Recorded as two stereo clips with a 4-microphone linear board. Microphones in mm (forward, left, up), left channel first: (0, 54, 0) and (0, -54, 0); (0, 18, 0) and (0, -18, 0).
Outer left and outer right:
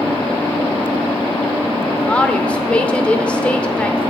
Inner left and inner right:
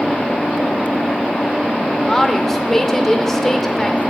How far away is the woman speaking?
About 0.8 m.